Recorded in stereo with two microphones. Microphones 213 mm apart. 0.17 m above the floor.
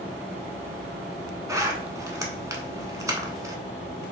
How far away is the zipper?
About 0.7 m.